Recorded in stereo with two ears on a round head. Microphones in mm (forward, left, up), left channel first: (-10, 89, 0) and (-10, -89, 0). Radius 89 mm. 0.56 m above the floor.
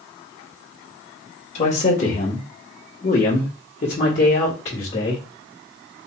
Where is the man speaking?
35° left (ahead or behind), 1.3 m; by 5.2 s 30° left (ahead or behind), 2 m.